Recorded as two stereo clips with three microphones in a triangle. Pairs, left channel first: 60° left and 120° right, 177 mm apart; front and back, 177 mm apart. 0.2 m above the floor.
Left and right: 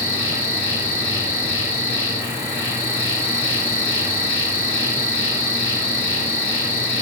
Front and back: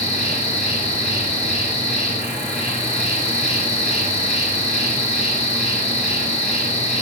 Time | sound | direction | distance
0.0 | an insect | 170° left | 2.5 m